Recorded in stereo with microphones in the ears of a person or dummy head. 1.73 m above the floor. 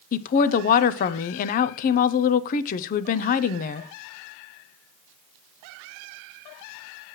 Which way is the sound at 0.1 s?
50° left (ahead or behind).